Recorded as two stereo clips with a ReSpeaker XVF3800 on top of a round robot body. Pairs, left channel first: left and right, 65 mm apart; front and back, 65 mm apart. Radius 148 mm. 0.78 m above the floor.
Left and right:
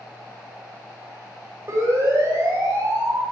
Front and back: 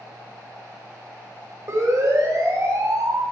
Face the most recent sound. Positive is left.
turn(degrees=-150)